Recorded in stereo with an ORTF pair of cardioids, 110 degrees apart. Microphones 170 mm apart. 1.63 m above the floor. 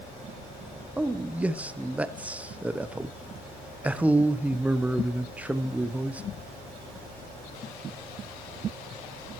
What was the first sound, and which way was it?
A man speaking, 10° right.